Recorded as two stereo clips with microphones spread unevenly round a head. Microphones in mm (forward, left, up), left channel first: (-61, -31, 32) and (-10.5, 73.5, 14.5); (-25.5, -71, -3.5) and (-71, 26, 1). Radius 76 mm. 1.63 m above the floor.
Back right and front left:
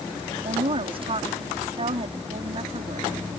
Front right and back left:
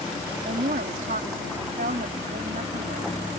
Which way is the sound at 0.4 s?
105° left.